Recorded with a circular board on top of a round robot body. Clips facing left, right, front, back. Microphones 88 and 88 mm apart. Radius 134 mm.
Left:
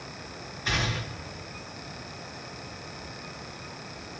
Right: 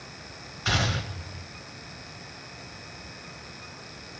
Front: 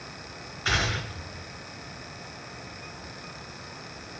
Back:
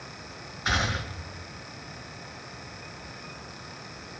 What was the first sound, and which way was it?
A gunshot, 100° right.